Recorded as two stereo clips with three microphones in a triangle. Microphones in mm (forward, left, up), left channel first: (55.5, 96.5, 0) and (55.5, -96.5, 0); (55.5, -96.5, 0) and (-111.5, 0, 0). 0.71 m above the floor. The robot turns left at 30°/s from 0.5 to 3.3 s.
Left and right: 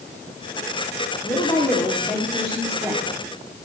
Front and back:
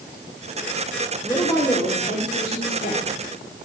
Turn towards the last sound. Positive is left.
turn(degrees=-25)